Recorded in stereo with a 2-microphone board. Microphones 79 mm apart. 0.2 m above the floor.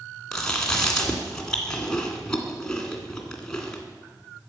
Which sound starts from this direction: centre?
Chewing, at 0.3 s.